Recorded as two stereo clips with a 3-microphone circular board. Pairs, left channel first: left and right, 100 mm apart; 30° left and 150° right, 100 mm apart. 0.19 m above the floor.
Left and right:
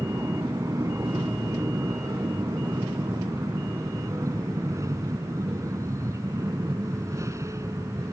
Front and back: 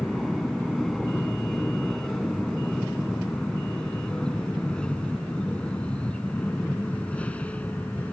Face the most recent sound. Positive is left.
turn(degrees=-40)